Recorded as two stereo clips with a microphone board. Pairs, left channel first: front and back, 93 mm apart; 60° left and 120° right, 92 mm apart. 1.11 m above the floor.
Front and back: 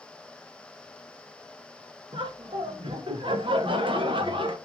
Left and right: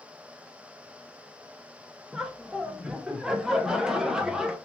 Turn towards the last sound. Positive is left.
turn(degrees=155)